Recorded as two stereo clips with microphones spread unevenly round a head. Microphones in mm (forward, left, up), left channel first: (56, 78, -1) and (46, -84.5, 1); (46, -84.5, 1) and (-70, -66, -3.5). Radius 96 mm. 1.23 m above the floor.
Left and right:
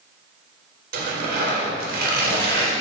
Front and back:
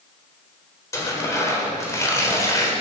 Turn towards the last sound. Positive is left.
turn(degrees=-70)